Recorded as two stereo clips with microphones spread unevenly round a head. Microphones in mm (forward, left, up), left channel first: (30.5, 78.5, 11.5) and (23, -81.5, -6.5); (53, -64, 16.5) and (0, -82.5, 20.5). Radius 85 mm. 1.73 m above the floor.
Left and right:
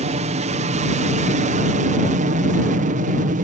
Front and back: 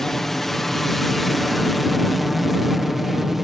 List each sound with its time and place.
0.0 s an aircraft: 65° right; by 3.4 s 75° right